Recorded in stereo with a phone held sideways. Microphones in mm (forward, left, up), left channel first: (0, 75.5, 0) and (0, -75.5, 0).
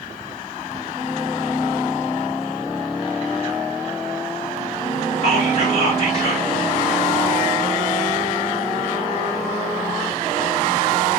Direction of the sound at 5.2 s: 45° left (ahead or behind).